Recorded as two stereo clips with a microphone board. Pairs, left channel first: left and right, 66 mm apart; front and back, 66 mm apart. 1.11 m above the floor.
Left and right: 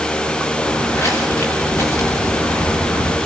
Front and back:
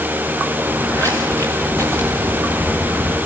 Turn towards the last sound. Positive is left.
turn(degrees=115)